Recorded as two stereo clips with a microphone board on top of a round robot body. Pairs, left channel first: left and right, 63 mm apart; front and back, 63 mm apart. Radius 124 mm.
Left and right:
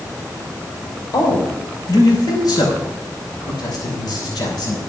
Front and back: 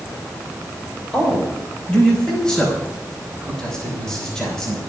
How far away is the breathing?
I don't hear breathing.